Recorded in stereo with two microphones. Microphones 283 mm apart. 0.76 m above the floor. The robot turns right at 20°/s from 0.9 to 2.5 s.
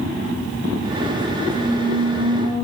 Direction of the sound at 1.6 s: 35° left (ahead or behind).